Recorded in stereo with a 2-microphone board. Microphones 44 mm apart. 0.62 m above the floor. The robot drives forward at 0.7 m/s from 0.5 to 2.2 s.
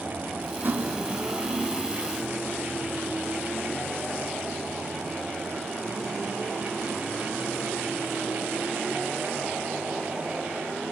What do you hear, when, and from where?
0.6 s cutlery clinking: 55° right (ahead or behind), 2 m; by 1.9 s 75° right (ahead or behind), 1.8 m